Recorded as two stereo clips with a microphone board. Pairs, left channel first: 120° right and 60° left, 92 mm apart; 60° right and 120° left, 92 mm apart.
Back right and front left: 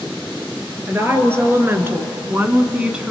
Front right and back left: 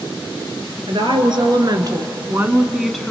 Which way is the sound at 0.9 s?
120° left.